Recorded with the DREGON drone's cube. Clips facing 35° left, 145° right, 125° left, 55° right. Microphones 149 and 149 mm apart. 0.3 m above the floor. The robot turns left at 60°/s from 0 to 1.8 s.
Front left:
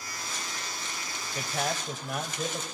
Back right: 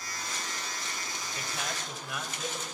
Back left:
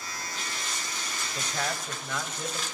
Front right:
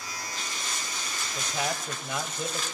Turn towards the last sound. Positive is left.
turn(degrees=10)